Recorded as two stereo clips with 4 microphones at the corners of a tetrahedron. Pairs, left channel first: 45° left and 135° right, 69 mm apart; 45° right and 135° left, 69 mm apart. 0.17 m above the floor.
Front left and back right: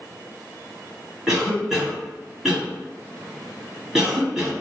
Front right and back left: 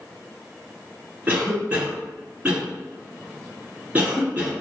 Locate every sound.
1.3 s a cough: 150° left, 1.5 m